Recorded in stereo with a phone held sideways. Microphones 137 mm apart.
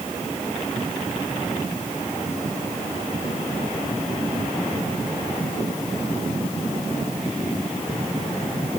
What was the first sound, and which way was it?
Only background noise.